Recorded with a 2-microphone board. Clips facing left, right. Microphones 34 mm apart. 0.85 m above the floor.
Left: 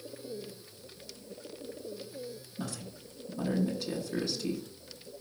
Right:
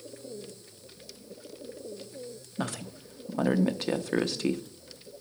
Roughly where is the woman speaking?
Right.